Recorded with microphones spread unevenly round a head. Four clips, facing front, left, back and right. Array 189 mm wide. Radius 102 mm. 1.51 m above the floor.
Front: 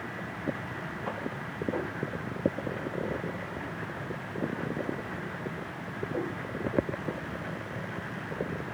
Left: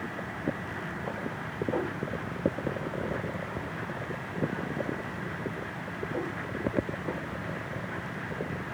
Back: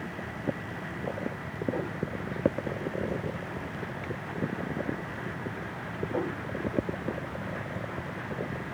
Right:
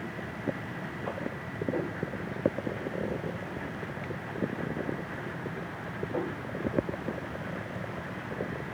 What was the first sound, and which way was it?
Only background noise.